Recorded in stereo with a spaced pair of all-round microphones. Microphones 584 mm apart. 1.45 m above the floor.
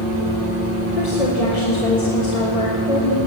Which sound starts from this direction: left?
A woman speaking, at 1.0 s.